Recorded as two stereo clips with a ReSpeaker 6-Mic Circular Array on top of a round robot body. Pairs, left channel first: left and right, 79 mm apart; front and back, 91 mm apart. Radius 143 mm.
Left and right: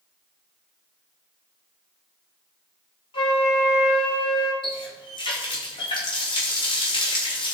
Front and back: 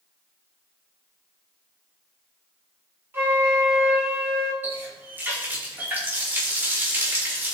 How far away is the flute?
About 1.7 m.